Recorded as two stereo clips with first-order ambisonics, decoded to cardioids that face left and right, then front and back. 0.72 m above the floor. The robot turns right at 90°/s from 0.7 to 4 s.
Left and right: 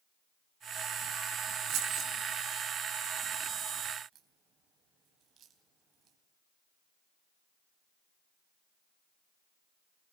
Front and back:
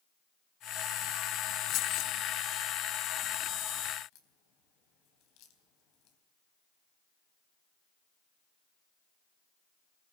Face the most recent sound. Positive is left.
turn(degrees=-35)